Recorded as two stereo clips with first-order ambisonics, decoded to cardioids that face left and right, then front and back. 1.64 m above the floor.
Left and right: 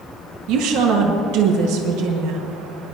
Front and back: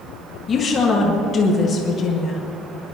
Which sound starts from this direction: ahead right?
A woman speaking, at 0.5 s.